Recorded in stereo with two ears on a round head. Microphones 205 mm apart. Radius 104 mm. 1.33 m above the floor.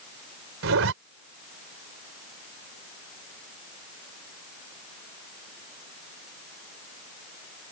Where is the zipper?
65° right (ahead or behind).